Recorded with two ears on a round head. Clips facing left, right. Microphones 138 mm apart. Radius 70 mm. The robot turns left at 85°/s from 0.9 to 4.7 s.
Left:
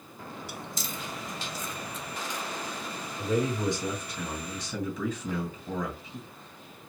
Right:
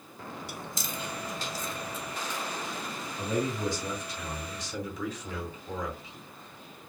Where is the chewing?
45° right (ahead or behind), 1.3 m; by 2.4 s 20° left (ahead or behind), 1.3 m.